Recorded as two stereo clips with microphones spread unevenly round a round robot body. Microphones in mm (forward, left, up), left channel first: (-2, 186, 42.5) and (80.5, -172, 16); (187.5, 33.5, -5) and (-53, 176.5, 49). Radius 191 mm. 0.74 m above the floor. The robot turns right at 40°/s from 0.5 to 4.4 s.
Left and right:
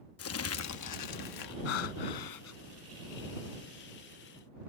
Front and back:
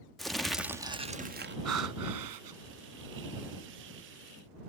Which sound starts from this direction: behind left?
Breathing, at 1.6 s.